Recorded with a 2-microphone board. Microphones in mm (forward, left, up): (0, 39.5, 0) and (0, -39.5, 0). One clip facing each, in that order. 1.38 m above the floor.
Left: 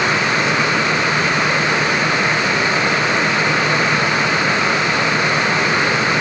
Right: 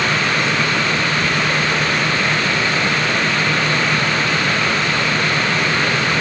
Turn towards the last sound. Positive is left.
No sound to turn to.